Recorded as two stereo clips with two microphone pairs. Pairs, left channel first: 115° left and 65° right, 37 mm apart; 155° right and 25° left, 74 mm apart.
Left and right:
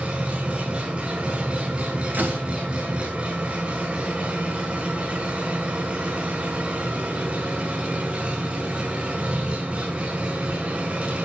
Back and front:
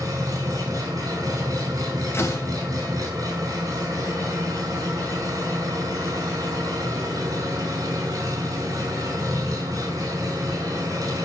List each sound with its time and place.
0.0 s an engine running: 10° right, 4.5 m
2.1 s a door slam: 100° right, 2.5 m